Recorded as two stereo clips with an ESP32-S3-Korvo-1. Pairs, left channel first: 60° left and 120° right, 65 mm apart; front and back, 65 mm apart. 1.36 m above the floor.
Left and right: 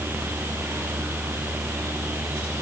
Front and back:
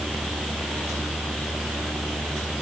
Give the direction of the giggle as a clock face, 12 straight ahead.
I don't hear a giggle.